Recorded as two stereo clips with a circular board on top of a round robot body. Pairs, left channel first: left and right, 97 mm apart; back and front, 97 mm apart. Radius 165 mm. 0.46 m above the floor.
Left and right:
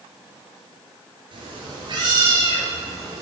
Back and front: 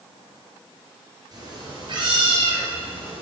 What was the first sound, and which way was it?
A cat meowing, 50° right.